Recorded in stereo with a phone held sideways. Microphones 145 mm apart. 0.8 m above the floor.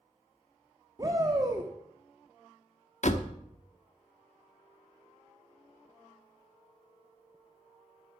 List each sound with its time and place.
1.0 s a shout: 30° right (ahead or behind), 1.3 m
3.0 s a door slam: 60° left (ahead or behind), 1.0 m